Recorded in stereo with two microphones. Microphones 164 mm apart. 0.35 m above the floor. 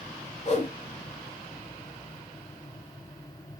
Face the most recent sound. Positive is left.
turn(degrees=45)  # may be behind; listen again after turning